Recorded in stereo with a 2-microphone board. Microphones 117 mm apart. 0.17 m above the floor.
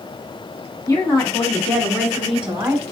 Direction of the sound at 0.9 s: 30° left (ahead or behind).